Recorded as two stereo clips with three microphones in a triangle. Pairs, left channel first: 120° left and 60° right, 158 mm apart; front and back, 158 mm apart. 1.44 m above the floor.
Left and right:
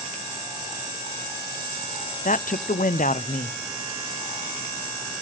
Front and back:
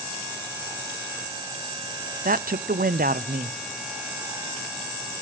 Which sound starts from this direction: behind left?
A man speaking, at 2.2 s.